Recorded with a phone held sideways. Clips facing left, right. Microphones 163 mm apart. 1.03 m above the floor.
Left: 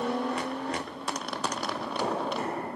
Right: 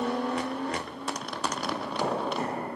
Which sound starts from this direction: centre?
Running footsteps, at 1.6 s.